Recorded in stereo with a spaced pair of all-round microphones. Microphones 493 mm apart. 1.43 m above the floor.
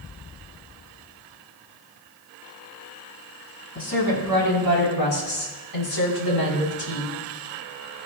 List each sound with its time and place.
3.8 s a woman speaking: 50° left (ahead or behind), 5.5 m; by 7.1 s 45° left (ahead or behind), 3 m